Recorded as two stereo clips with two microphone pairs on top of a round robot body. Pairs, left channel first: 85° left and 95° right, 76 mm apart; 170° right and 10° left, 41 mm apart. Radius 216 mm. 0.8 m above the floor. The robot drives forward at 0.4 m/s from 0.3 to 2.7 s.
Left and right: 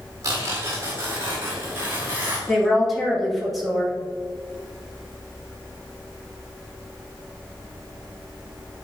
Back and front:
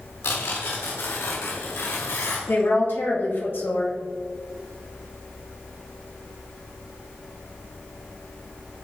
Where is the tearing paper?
150° right, 1.6 m; by 2.4 s 160° right, 2.5 m.